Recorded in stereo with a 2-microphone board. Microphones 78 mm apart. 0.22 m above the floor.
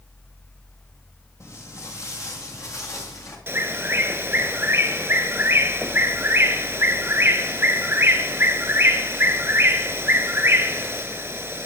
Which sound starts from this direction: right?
A bird, at 3.5 s.